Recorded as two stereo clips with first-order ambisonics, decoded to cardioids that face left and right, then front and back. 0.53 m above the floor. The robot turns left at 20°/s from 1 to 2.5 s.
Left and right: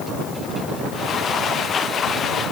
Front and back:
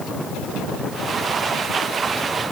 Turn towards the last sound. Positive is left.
No sound to turn to.